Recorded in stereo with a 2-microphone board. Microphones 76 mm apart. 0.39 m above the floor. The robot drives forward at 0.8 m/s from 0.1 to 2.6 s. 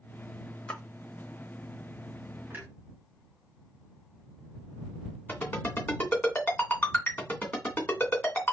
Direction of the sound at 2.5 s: 25° right (ahead or behind).